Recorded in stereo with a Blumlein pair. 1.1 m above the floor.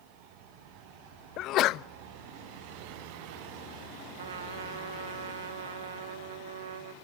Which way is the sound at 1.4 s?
35° left.